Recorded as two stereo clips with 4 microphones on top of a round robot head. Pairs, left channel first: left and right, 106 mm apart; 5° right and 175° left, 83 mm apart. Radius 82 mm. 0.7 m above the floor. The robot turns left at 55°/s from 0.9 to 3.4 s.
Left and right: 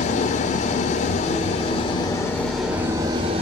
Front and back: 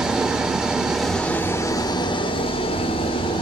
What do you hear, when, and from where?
0.0 s an engine running: 95° left, 0.9 m; by 3.4 s 45° right, 0.9 m